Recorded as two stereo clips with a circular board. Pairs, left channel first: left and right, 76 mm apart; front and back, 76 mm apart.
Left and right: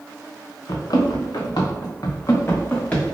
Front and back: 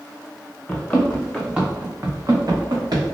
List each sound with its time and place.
0.7 s running footsteps: 70° left, 1.0 m; by 3.0 s 160° left, 1.0 m